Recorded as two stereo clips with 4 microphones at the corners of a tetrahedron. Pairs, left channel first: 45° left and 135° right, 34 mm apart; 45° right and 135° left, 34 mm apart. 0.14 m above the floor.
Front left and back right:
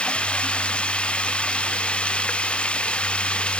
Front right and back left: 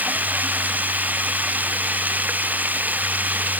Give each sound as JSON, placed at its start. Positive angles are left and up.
{"t": 0.0, "sound": "running water", "azimuth_deg": 100}